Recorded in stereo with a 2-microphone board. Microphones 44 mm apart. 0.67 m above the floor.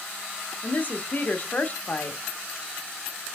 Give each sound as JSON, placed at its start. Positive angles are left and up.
{"t": 0.6, "sound": "a woman speaking", "side_deg": 40, "distance_m": 0.7}